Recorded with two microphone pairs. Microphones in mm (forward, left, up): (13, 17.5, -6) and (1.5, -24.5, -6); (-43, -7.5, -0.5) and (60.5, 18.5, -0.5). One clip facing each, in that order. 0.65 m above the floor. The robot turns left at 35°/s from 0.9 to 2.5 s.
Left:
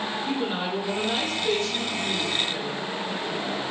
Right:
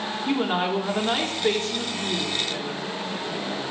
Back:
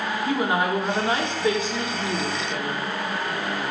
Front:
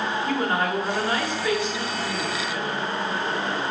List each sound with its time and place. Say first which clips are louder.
0.3 s a woman speaking: right 6 dB, back 3 dB; 95° right, 1.5 m; by 2.8 s 150° right, 1.5 m